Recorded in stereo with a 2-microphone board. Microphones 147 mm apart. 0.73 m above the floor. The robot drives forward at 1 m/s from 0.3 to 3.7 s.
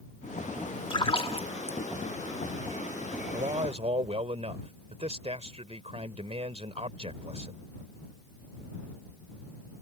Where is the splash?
35° left (ahead or behind); by 1.8 s 45° left (ahead or behind).